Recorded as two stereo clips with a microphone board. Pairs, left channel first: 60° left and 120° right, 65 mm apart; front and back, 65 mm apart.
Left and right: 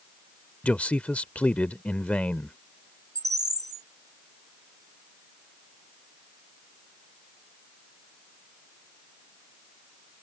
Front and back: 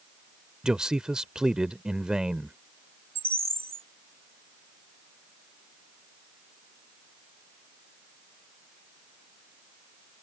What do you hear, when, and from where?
0.6 s a man speaking: 110° left
3.1 s a bird: 135° right